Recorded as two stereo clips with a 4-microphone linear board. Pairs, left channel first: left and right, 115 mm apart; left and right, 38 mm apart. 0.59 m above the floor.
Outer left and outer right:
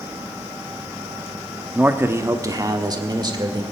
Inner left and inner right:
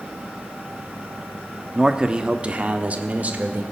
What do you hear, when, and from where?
1.8 s a man speaking: 15° right (ahead or behind), 0.8 m; by 3.6 s 40° right (ahead or behind), 1.8 m